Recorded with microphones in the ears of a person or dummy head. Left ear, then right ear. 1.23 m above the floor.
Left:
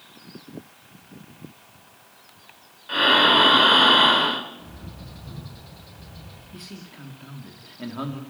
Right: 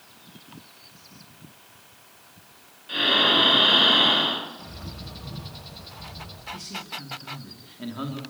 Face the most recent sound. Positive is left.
turn(degrees=20)  # may be behind; listen again after turning